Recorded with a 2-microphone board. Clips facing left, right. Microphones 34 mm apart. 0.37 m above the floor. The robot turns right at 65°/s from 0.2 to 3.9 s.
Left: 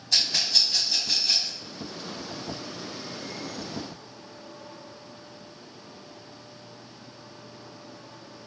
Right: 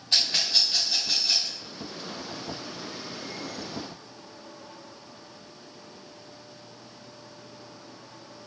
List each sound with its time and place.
0.1 s a rattle: 30° right (ahead or behind), 1.7 m; by 1.6 s 15° left (ahead or behind), 1.7 m